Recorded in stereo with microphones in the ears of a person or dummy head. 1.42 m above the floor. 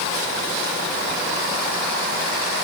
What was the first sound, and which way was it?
Only background noise.